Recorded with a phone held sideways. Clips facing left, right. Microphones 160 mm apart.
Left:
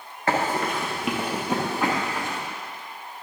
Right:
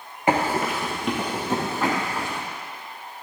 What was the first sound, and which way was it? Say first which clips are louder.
Running footsteps: right 2 dB; 15° right (ahead or behind).